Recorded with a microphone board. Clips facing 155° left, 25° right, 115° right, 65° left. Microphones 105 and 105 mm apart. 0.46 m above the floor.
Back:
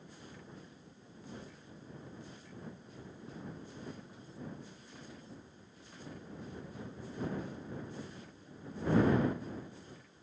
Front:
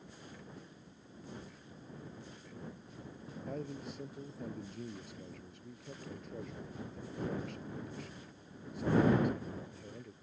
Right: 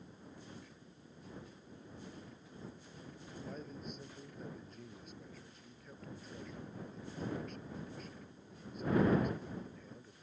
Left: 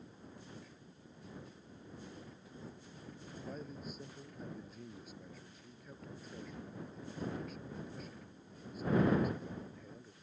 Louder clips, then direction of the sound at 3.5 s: Front 8 dB, left 1 dB; 20° right.